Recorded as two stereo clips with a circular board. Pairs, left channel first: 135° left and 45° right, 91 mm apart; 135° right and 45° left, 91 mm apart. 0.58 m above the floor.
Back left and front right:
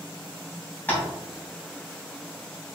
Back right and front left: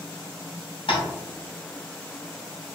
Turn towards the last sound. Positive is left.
turn(degrees=-155)